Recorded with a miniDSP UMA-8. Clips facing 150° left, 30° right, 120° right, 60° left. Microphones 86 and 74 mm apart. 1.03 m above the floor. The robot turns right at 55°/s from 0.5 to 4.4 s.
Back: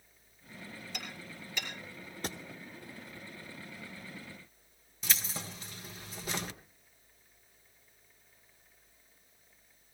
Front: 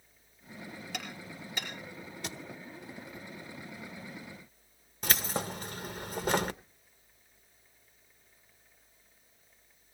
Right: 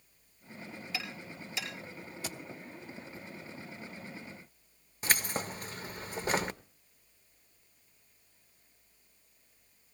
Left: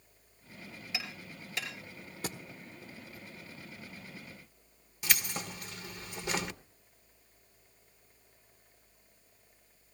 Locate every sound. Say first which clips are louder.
0.9 s hammering: front 4 dB, right 1 dB; 10° right, 5.5 m; by 1.7 s 35° left, 5.5 m
2.2 s a thud: back 3 dB, left 3 dB; 100° left, 1.3 m; by 2.4 s 110° left, 1.3 m
5.0 s keys jangling: front 7 dB, right 3 dB; 70° right, 0.6 m